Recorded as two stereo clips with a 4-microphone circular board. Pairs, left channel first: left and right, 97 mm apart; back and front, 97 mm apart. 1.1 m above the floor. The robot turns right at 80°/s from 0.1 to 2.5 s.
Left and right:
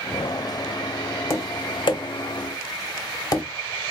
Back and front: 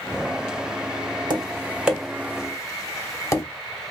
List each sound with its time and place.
1.3 s tapping: 35° left, 1.0 m; by 3.4 s 130° left, 1.0 m